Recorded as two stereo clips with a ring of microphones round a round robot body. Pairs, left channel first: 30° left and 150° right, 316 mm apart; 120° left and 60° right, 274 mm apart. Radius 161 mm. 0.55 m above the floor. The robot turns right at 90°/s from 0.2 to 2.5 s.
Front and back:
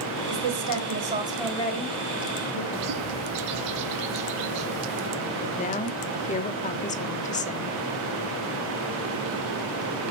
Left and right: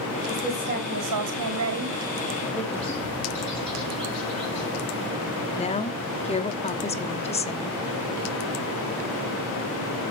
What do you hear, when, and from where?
0.3 s a woman speaking: 165° right, 3.5 m; by 2.6 s 35° left, 3.5 m
2.7 s a bird: 155° right, 6 m
5.5 s a woman speaking: 75° left, 1.3 m